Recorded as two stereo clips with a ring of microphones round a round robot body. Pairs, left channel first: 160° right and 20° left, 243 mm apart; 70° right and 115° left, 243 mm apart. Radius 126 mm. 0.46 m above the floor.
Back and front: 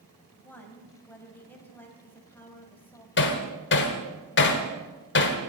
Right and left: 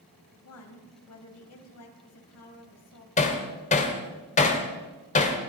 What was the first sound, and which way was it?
A woman speaking, 75° right.